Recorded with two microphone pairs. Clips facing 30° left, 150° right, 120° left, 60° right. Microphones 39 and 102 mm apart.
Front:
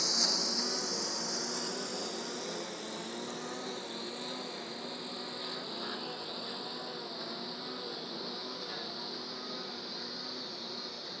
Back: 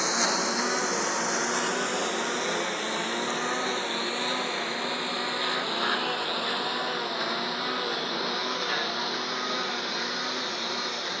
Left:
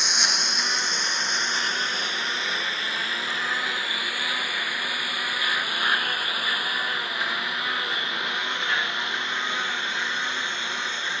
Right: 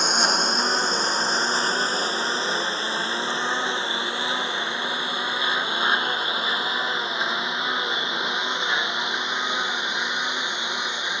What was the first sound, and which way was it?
A lawn mower, 110° right.